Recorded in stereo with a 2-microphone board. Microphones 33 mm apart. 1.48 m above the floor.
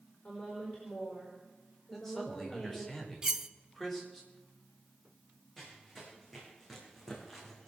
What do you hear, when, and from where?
0.2 s a woman speaking: 35° left (ahead or behind), 5.5 m
1.9 s a man speaking: 5° left (ahead or behind), 4.5 m
3.2 s cutlery clinking: 20° right (ahead or behind), 0.6 m
5.6 s running footsteps: 5° left (ahead or behind), 5 m